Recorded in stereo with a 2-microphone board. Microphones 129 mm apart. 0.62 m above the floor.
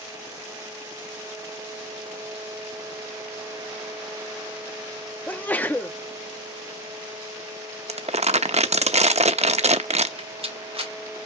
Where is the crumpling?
55° right (ahead or behind), 0.7 m.